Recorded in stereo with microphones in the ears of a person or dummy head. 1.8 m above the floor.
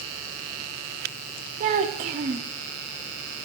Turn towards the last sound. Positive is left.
turn(degrees=-30)  # may be behind; listen again after turning